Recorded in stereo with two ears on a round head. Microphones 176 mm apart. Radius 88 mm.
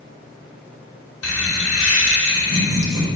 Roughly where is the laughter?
Left.